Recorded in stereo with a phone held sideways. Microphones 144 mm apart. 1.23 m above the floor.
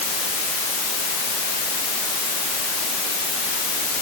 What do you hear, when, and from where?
Only background noise.